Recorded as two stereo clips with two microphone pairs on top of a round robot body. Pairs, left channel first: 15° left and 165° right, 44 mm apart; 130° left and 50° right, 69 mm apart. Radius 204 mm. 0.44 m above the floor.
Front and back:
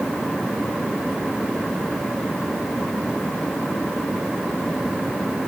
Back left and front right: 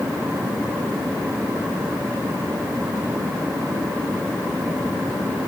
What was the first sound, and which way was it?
Only background noise.